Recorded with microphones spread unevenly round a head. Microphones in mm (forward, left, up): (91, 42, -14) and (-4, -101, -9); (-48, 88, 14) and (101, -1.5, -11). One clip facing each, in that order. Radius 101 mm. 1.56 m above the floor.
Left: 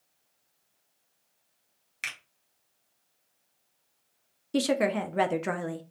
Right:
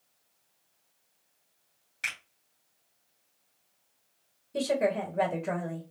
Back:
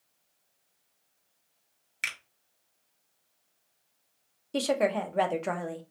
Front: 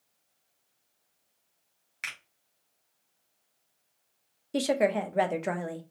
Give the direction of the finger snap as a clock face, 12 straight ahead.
9 o'clock.